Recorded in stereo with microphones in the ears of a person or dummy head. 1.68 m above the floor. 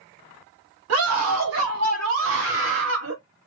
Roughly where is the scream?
Right.